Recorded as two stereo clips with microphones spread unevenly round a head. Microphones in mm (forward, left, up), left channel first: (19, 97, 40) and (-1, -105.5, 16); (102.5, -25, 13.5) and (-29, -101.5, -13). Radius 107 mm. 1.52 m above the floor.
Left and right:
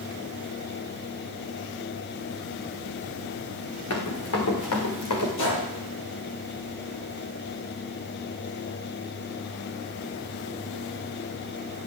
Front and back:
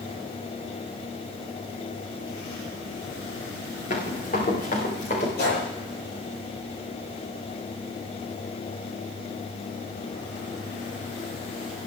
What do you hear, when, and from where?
3.9 s running footsteps: 75° left, 6 m
5.4 s a gunshot: 55° left, 8.5 m